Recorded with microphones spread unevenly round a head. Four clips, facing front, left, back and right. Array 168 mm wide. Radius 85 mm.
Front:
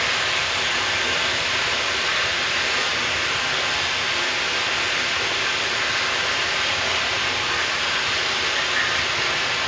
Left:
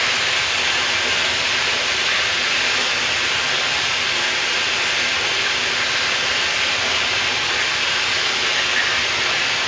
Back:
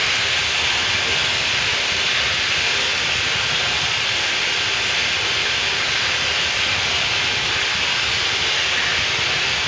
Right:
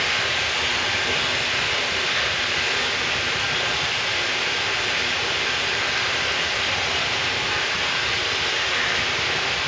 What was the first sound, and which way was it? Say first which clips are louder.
Running water: left 2 dB, even; 60° left.